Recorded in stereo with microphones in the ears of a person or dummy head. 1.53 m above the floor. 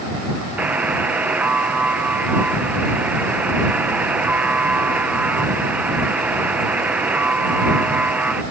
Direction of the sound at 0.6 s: 10° right (ahead or behind).